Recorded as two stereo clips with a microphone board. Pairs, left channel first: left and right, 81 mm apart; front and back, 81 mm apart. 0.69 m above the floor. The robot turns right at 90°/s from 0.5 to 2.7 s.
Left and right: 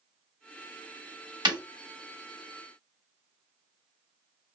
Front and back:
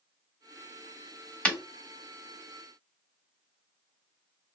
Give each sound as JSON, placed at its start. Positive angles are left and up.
{"t": 1.4, "sound": "breaking glass", "azimuth_deg": -70, "distance_m": 1.2}